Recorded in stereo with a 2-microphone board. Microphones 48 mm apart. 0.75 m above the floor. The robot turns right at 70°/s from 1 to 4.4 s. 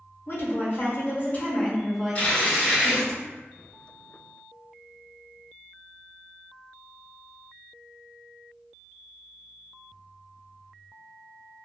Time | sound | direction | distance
0.3 | a woman speaking | 105° left | 0.6 m
2.1 | tearing paper | 140° left | 2.0 m